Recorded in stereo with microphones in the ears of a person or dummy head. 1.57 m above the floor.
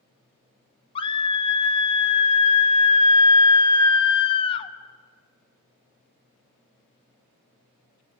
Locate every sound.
0.9 s a scream: 35° left (ahead or behind), 1.2 m